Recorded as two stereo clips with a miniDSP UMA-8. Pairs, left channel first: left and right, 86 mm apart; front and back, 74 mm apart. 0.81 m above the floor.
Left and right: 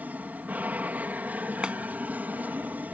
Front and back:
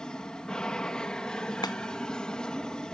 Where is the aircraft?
60° right.